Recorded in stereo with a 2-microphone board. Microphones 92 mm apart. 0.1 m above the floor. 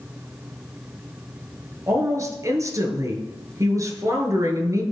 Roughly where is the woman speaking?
Right.